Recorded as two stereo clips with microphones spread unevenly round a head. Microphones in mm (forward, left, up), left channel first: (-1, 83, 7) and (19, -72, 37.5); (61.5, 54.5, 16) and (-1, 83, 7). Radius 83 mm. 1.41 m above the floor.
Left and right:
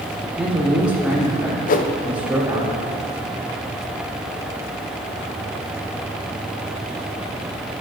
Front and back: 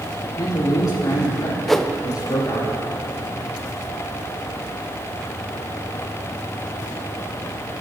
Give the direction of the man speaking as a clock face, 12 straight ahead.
12 o'clock.